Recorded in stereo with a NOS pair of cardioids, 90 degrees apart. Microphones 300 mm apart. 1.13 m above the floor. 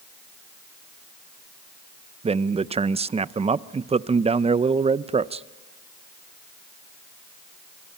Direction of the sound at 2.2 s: 20° right.